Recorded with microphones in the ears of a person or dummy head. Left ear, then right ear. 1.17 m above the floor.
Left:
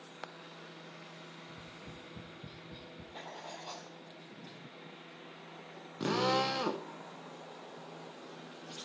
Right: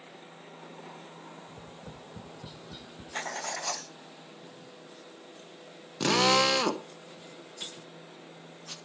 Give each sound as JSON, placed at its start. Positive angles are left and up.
{"t": 1.5, "sound": "tapping", "side_deg": -35, "distance_m": 0.6}
{"t": 3.1, "sound": "writing", "side_deg": -60, "distance_m": 0.8}
{"t": 6.0, "sound": "a drill", "side_deg": -65, "distance_m": 0.8}